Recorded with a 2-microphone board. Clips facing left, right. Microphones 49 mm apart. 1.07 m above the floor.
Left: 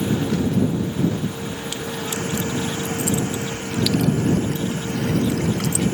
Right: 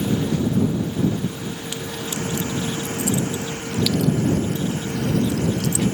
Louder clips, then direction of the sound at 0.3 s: Even; 75° left (ahead or behind).